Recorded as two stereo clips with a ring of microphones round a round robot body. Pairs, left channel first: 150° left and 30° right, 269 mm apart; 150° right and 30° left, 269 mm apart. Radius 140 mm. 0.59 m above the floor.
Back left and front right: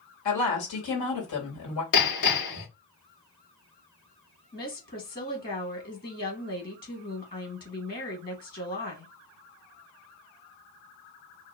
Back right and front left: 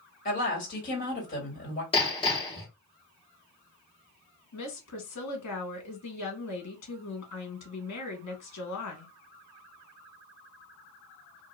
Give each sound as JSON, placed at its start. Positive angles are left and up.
{"t": 0.2, "sound": "a woman speaking", "azimuth_deg": 150, "distance_m": 2.0}
{"t": 1.9, "sound": "hammering", "azimuth_deg": 140, "distance_m": 2.0}
{"t": 4.5, "sound": "a woman speaking", "azimuth_deg": -155, "distance_m": 1.6}